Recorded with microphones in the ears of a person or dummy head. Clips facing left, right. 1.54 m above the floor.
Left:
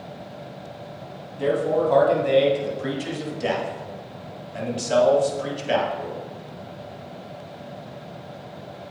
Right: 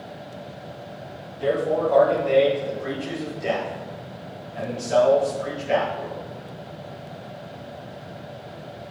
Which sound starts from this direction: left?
A man speaking, at 1.4 s.